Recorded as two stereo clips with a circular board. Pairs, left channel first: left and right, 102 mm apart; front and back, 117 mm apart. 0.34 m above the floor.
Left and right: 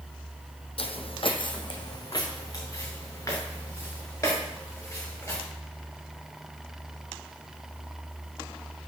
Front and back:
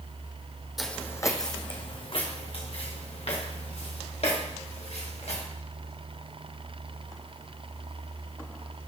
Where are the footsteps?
90° left, 0.7 m; by 5.4 s 25° left, 5 m.